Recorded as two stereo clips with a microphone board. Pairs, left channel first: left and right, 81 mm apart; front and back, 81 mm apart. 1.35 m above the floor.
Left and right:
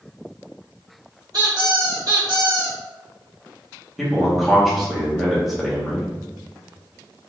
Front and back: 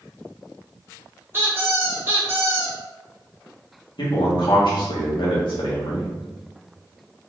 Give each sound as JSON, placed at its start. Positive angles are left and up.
{"t": 1.3, "sound": "a squeak", "azimuth_deg": -120, "distance_m": 1.7}
{"t": 4.0, "sound": "a man speaking", "azimuth_deg": 0, "distance_m": 1.6}